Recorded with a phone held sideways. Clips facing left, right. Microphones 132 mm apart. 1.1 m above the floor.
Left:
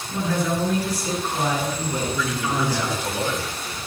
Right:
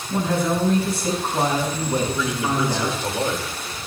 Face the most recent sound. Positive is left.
turn(degrees=-25)  # may be behind; listen again after turning